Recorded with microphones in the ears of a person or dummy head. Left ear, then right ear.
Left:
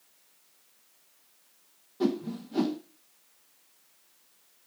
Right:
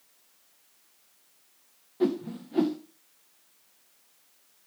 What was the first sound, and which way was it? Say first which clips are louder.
A whoosh: right 2 dB; 10° right (ahead or behind).